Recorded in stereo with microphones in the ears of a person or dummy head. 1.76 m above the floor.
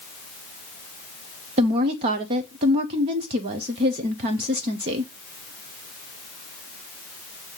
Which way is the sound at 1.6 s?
25° right (ahead or behind).